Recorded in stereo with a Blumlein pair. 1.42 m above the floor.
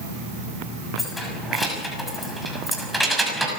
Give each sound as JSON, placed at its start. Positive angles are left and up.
{"t": 1.0, "sound": "keys jangling", "azimuth_deg": 10, "distance_m": 6.0}